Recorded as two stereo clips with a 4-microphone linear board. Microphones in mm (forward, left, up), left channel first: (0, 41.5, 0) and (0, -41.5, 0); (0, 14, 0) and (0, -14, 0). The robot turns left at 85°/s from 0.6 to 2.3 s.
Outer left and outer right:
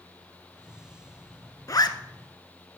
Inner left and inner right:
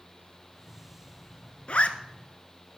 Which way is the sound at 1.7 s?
45° left (ahead or behind).